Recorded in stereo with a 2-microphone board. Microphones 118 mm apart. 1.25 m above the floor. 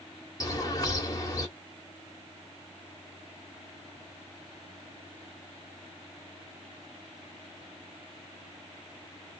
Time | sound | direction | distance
0.4 | a bird | 35° left (ahead or behind) | 1.0 m